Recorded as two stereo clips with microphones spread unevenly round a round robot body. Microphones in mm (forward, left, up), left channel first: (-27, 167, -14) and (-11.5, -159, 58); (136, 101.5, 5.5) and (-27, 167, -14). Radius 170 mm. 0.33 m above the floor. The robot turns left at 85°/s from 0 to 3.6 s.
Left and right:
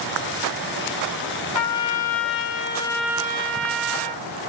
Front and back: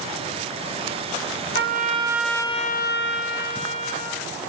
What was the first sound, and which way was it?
A trumpet, 125° left.